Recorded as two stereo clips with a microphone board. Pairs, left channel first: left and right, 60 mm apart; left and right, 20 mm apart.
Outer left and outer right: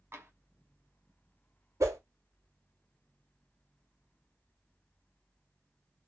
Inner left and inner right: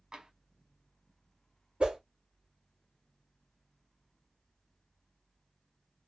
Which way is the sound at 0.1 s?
40° right (ahead or behind).